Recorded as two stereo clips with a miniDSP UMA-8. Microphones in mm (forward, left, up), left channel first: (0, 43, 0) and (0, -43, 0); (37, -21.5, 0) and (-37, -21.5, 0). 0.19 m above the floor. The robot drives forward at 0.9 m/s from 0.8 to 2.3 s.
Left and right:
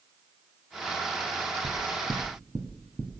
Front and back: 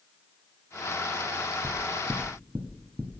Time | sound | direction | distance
1.6 | knocking | 115° right | 1.6 m